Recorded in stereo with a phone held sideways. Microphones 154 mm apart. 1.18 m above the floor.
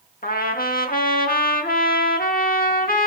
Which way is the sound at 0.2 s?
70° left (ahead or behind).